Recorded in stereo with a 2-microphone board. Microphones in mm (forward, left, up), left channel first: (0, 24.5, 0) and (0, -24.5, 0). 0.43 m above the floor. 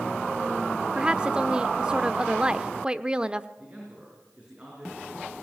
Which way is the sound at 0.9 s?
20° right (ahead or behind).